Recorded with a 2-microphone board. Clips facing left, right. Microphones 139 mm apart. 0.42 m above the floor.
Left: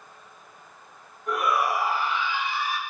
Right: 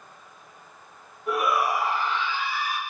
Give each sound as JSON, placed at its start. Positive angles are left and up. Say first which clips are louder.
{"t": 1.3, "sound": "a shout", "louder": "right 1 dB", "side_deg": -5, "distance_m": 3.0}